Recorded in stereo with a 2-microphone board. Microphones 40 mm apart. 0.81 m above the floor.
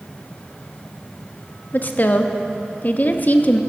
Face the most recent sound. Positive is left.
turn(degrees=45)  # may be behind; listen again after turning